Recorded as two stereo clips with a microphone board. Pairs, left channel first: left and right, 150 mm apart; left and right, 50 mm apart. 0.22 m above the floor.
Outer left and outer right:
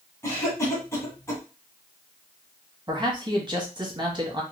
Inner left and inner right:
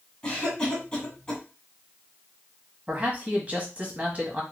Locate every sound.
0.2 s a cough: 15° left (ahead or behind), 1.4 m
2.9 s a man speaking: 30° right (ahead or behind), 1.1 m